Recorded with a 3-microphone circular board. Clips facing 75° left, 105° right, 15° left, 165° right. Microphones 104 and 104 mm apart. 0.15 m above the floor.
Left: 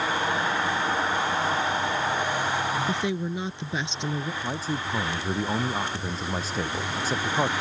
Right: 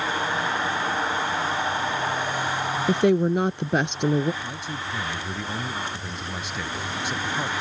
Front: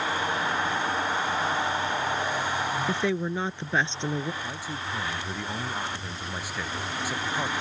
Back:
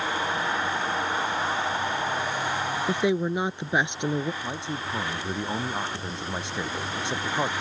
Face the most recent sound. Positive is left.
turn(degrees=130)